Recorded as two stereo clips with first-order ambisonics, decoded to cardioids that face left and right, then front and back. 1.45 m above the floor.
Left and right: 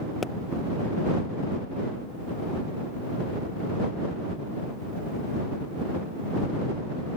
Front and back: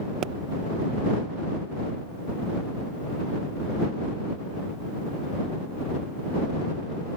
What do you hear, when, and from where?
0.2 s a pop: 160° left